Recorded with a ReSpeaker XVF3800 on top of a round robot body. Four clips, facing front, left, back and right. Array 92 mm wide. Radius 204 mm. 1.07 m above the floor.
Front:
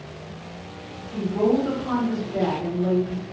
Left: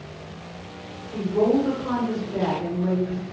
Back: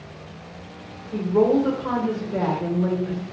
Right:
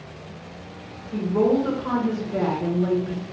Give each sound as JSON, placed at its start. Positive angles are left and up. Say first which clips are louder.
{"t": 1.1, "sound": "a woman speaking", "louder": "even, back 3 dB", "azimuth_deg": -155, "distance_m": 1.4}